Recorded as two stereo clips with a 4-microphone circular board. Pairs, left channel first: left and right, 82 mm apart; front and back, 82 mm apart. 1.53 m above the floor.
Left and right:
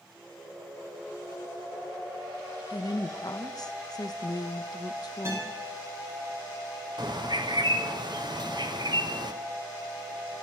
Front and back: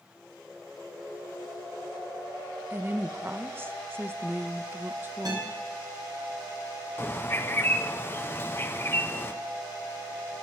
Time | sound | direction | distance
2.7 | a woman speaking | 115° left | 1.0 m
5.2 | a guitar | 145° right | 7 m
7.0 | a bird | 60° right | 1.0 m